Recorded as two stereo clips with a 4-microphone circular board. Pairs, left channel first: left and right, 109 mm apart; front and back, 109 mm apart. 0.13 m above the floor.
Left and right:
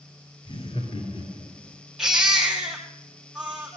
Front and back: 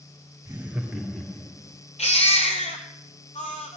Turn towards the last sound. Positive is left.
turn(degrees=-5)